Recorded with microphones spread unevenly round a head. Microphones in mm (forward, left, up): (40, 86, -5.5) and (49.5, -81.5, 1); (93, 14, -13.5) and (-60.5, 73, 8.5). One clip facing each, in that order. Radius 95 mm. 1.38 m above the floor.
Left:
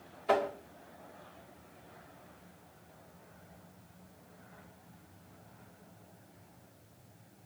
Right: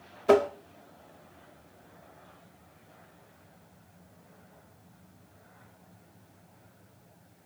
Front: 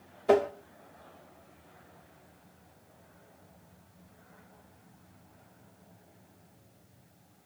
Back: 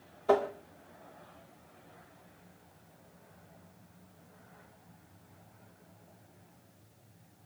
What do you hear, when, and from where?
0.3 s tapping: 95° right, 1.2 m